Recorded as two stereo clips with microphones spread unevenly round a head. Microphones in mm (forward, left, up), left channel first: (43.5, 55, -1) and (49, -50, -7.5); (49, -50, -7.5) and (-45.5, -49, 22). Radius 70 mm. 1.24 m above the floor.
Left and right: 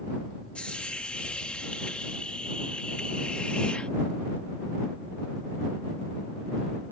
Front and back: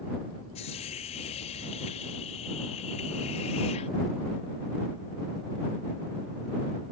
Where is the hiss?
15° left.